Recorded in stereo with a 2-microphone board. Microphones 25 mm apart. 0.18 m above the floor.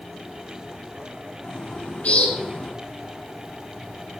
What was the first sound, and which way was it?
A bird, 60° left (ahead or behind).